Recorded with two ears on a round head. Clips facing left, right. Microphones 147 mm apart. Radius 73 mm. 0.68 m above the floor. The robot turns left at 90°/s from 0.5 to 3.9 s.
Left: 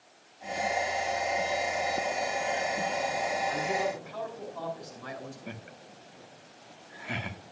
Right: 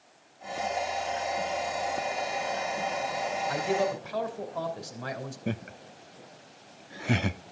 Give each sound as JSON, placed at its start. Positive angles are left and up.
{"t": 3.5, "sound": "a man speaking", "azimuth_deg": -75, "distance_m": 3.0}
{"t": 5.5, "sound": "laughter", "side_deg": -55, "distance_m": 1.0}